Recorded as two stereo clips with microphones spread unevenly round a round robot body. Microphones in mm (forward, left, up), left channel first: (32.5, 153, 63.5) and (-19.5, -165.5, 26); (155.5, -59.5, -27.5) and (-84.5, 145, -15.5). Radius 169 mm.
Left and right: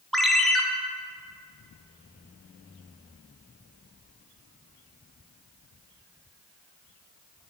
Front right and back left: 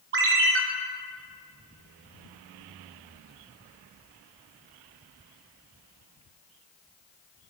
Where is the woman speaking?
I don't hear a woman speaking.